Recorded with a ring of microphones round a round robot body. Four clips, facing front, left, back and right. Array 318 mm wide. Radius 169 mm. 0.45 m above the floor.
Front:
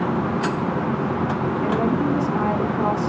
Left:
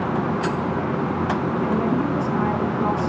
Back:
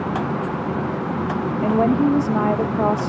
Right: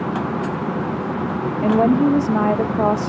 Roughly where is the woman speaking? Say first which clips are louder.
Right 9 dB, back 5 dB; behind right.